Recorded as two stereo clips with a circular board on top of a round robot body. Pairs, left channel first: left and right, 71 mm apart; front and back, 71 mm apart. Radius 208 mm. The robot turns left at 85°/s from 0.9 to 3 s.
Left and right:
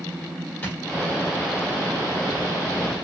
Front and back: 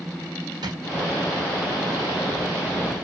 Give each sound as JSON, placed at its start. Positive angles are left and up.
{"t": 0.6, "sound": "a drawer", "azimuth_deg": 160, "distance_m": 1.2}